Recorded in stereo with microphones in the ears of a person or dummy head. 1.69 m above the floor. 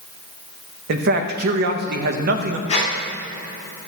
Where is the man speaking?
60° right (ahead or behind), 0.7 m.